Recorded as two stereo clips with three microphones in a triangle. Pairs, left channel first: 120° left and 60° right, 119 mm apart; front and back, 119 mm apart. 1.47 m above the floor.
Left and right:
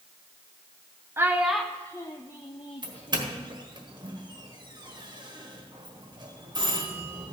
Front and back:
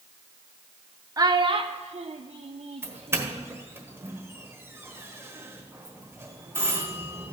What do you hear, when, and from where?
1.2 s a child speaking: 125° right, 0.5 m; by 3.5 s 150° left, 1.2 m
2.8 s a doorbell: 110° right, 1.5 m